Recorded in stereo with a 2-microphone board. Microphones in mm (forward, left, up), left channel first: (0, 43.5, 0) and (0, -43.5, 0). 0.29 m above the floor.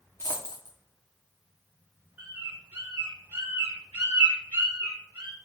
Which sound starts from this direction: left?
A dropped coin, at 0.2 s.